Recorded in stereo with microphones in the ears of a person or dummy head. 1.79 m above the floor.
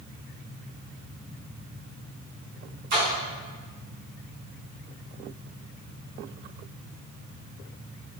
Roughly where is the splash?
Right.